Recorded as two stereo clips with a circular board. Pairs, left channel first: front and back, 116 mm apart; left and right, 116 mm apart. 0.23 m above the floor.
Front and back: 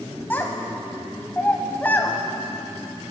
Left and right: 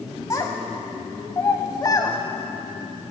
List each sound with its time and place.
0.3 s a child speaking: 60° left, 0.7 m